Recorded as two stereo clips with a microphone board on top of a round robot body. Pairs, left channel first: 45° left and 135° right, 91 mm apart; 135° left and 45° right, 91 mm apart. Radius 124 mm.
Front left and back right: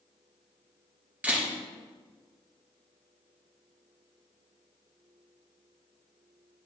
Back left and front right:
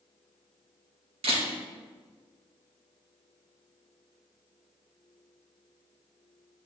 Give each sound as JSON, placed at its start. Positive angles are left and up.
{"t": 1.2, "sound": "a camera shutter", "azimuth_deg": -60, "distance_m": 2.5}